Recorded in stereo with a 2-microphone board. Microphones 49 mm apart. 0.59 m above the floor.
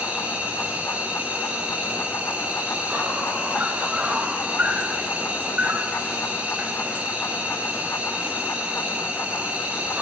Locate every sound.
0.0 s an insect: 30° right (ahead or behind), 2 m